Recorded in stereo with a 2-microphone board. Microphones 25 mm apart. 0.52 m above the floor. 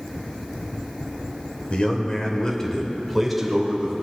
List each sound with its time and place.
1.7 s a man speaking: 45° left (ahead or behind), 1.8 m; by 3.9 s 15° right (ahead or behind), 2 m